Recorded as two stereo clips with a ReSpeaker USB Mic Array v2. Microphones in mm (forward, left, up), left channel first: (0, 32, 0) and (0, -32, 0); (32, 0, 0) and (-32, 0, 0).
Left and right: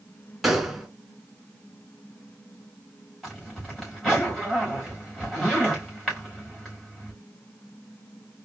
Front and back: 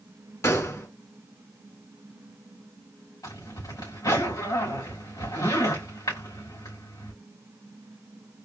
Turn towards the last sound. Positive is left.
turn(degrees=5)